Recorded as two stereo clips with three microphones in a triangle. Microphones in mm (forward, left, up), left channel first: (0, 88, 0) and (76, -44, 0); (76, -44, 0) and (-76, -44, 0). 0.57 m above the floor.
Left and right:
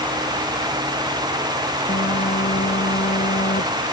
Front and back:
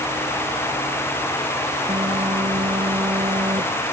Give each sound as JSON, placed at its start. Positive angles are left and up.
{"t": 1.9, "sound": "a phone buzzing", "azimuth_deg": 125}